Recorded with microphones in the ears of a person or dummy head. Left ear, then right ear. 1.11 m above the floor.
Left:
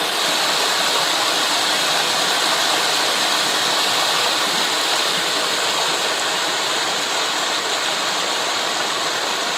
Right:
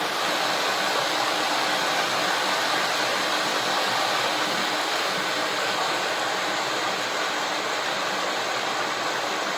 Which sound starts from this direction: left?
Running water, at 0.0 s.